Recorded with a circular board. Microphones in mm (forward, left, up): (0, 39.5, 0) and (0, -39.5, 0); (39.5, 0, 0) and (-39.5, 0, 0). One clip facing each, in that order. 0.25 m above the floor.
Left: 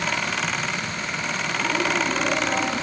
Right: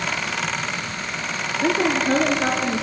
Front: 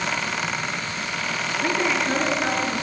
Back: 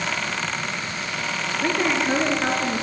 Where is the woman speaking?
100° right, 4 m; by 2.8 s 115° right, 3 m.